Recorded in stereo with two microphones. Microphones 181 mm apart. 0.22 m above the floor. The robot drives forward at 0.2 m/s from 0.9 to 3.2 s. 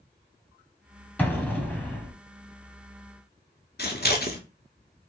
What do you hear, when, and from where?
1.2 s an explosion: 10° left (ahead or behind), 0.8 m
3.8 s scissors: 60° left (ahead or behind), 0.8 m